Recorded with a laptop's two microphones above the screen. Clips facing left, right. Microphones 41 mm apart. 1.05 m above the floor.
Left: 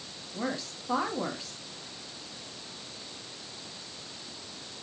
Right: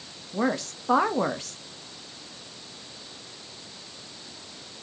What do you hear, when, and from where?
0.3 s a woman speaking: 60° right (ahead or behind), 1.3 m